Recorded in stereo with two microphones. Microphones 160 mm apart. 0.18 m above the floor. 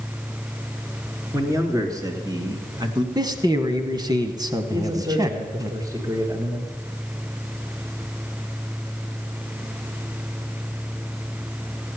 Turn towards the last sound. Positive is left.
turn(degrees=-20)  # may be behind; listen again after turning